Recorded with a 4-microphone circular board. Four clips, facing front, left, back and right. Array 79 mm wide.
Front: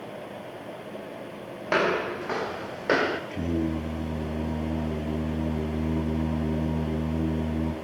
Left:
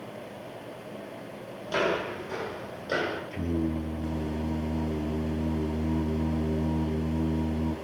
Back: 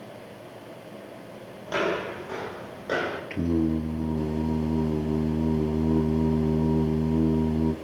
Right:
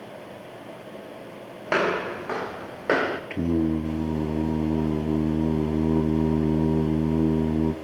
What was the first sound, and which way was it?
Footsteps, 55° right.